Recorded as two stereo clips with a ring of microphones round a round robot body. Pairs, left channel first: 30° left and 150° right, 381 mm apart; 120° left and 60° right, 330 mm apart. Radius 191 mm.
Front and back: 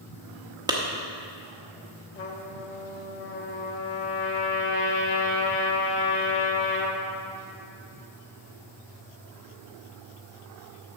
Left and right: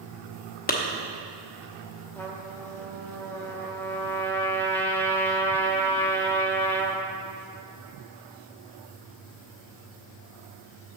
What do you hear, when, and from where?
0.7 s a clap: 140° left, 0.9 m
2.1 s a trumpet: 40° left, 0.9 m